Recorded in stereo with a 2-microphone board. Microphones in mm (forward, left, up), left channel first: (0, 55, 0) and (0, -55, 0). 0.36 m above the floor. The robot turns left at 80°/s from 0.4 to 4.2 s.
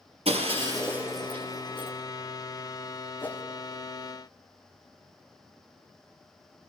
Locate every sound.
0.2 s breaking glass: 60° right (ahead or behind), 5 m; by 1.9 s 60° left (ahead or behind), 5 m
3.2 s a whoosh: 20° left (ahead or behind), 1.6 m; by 3.4 s 5° left (ahead or behind), 1.6 m